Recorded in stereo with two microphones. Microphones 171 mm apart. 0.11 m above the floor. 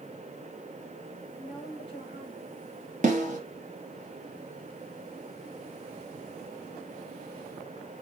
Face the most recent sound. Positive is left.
turn(degrees=-45)  # may be behind; listen again after turning